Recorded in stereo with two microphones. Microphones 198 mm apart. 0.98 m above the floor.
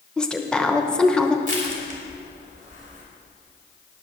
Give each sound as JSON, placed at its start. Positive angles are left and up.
{"t": 0.2, "sound": "a woman speaking", "side_deg": 5, "distance_m": 0.8}
{"t": 1.5, "sound": "crushing", "side_deg": -40, "distance_m": 2.5}